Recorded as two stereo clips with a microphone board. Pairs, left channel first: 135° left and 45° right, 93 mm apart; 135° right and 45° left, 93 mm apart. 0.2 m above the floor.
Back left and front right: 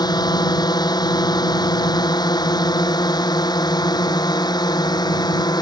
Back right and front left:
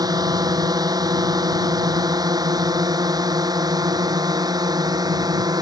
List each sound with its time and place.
0.0 s a drone: 90° left